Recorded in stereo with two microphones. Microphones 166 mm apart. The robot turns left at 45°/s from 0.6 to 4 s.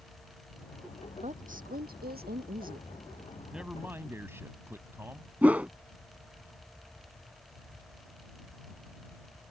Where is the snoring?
No snoring in this recording.